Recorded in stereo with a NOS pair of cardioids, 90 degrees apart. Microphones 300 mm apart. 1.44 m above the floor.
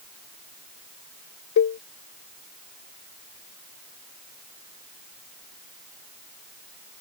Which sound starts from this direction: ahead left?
A cowbell, at 1.6 s.